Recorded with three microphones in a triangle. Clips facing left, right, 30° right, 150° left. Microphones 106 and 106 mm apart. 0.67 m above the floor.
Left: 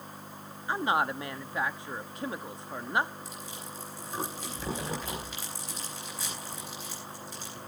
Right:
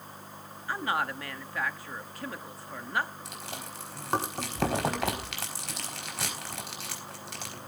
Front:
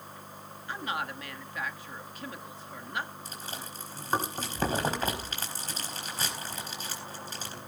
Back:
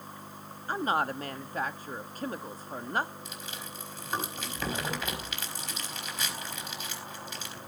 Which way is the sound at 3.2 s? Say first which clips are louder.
Right 1 dB, front 1 dB; 80° right.